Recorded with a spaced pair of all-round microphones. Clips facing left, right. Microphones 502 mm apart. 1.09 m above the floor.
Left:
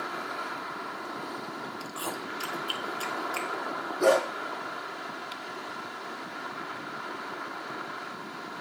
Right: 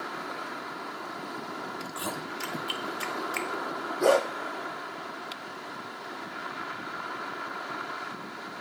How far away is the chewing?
About 0.8 m.